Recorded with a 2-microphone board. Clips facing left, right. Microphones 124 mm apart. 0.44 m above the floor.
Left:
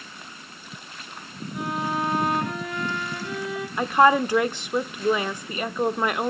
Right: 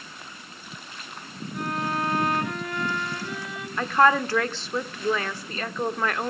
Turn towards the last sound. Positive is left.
turn(degrees=15)  # may be behind; listen again after turning